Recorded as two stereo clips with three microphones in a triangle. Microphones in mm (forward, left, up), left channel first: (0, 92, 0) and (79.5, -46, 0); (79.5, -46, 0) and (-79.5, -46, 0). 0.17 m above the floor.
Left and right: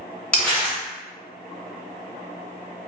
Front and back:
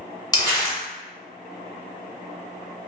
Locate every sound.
0.3 s crumpling: 40° left, 1.3 m